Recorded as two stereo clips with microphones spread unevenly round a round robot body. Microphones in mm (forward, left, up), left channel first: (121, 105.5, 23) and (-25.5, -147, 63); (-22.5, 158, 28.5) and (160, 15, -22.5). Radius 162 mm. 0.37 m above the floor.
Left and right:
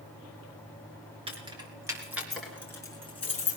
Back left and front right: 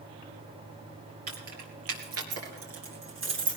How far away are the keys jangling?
About 4.5 m.